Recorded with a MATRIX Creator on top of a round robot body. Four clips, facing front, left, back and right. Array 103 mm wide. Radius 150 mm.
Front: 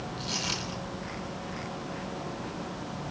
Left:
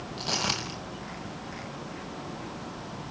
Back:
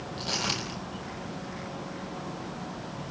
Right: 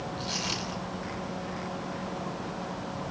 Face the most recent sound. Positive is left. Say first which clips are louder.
# left 2 dB, back 2 dB
turn(degrees=110)